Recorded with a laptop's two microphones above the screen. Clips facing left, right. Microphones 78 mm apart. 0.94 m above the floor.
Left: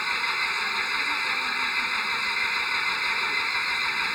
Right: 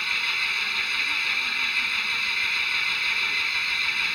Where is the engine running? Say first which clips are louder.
Left 2 dB; 25° left (ahead or behind).